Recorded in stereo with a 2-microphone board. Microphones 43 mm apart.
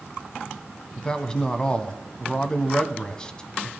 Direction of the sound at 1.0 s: 20° left (ahead or behind).